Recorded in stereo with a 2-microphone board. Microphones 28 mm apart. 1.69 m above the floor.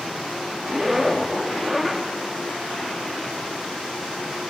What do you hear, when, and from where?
0.7 s a zipper: 5° right (ahead or behind), 1.5 m